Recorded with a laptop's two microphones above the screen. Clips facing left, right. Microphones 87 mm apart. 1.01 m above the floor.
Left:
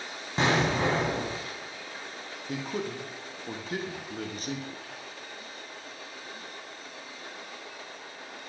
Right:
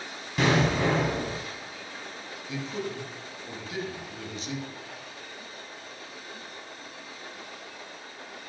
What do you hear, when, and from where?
0.4 s an explosion: 30° left (ahead or behind), 1.1 m
2.5 s a man speaking: 50° left (ahead or behind), 0.9 m